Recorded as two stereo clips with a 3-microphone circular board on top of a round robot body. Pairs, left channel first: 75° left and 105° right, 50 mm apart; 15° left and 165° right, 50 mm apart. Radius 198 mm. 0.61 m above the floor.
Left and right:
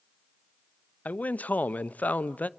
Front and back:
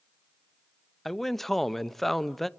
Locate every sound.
1.1 s a man speaking: 95° left, 0.9 m